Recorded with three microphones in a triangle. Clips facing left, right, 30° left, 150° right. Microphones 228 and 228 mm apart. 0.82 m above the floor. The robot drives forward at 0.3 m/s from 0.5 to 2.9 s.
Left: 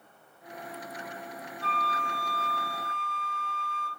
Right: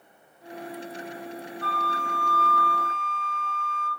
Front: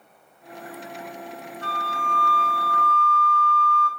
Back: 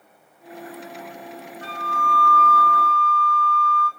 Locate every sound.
1.6 s a flute: 105° right, 1.3 m; by 3.9 s 120° right, 1.4 m